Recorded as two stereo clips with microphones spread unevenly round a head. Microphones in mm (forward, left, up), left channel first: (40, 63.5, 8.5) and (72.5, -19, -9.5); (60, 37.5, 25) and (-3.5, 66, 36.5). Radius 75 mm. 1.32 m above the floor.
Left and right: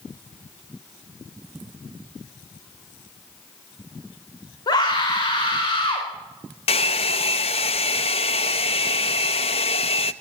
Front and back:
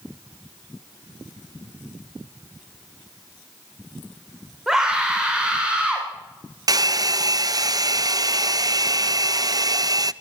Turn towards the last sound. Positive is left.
turn(degrees=130)